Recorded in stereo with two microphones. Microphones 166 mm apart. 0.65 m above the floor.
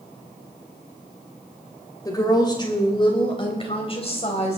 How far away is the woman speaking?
About 3 m.